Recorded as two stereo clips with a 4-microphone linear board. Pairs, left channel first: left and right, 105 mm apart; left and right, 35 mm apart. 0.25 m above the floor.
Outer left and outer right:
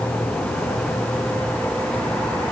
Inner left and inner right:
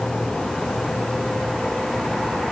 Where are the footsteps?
I don't hear footsteps.